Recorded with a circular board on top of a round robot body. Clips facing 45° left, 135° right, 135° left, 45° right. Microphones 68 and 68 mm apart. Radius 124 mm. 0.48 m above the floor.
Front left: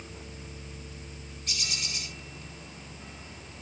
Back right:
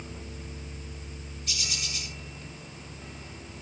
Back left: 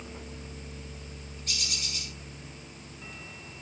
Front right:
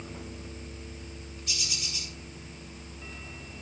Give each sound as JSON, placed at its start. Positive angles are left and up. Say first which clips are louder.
{"t": 1.5, "sound": "a bird", "louder": "even, back left 1 dB", "azimuth_deg": 90, "distance_m": 8.5}